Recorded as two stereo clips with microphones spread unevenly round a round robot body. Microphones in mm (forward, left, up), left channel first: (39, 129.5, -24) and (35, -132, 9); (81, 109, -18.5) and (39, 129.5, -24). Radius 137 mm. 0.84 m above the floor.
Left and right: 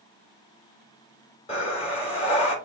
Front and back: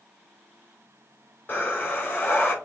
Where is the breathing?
20° left, 4.5 m.